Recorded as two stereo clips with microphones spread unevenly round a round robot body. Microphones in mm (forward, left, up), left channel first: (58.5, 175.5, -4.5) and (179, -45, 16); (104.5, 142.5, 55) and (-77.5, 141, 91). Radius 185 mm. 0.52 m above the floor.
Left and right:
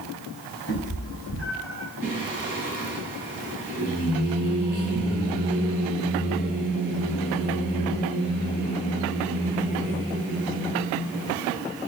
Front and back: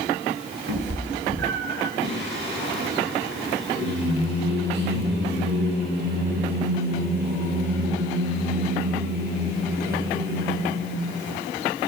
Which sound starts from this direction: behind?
A cat meowing, at 0.7 s.